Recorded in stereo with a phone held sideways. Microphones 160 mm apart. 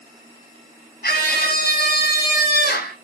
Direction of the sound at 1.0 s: 85° left.